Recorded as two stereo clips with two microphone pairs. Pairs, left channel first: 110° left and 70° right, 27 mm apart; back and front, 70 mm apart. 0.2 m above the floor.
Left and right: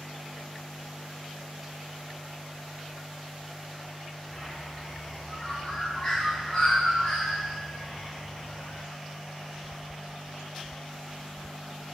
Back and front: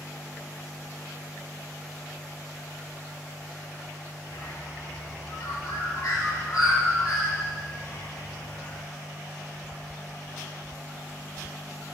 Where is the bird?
165° left, 2 m.